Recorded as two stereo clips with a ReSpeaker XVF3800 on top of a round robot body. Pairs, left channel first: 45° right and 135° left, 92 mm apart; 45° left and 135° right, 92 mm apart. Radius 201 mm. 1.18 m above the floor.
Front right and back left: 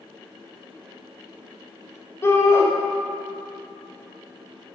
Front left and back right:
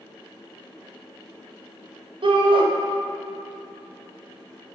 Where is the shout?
110° right, 1.3 m.